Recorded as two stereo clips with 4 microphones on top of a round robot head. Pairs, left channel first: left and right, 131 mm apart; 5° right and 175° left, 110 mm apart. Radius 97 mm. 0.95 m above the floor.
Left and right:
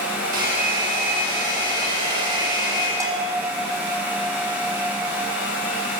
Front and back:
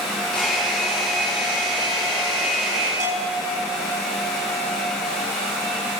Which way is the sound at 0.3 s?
90° right.